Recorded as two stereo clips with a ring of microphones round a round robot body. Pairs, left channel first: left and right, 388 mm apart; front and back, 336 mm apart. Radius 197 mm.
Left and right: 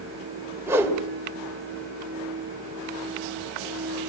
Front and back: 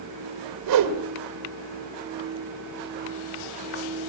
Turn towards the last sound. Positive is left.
turn(degrees=-175)